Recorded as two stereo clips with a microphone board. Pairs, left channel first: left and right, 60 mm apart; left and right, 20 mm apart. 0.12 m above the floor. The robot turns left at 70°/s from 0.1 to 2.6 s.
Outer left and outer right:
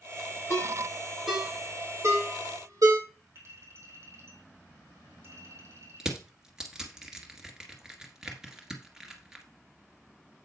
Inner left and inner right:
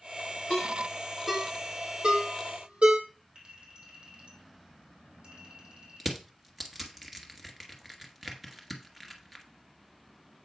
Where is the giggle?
No giggle in this recording.